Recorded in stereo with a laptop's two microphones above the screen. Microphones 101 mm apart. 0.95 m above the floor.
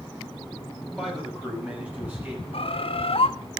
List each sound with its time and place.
1.0 s a man speaking: 5° right (ahead or behind), 5.5 m; by 2.4 s 20° right (ahead or behind), 7 m
2.5 s a bird: 65° left (ahead or behind), 1.1 m